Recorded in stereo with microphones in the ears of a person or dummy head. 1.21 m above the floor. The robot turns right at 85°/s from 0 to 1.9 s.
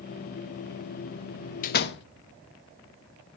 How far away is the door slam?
About 0.8 m.